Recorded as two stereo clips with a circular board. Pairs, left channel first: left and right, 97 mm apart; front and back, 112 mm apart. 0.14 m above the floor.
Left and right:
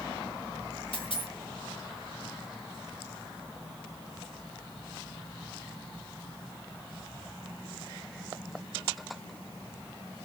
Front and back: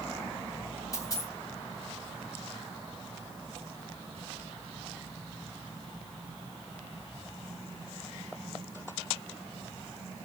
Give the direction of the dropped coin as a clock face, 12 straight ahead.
10 o'clock.